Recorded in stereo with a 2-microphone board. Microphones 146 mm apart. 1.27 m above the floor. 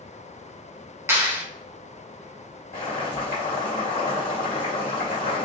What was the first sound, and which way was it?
A clap, 15° right (ahead or behind).